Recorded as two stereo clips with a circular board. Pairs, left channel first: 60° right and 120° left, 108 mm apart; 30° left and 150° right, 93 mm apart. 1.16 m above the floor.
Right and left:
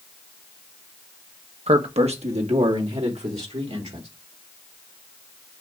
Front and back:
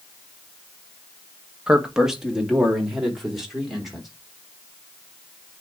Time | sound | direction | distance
1.7 | a man speaking | 130° left | 1.2 m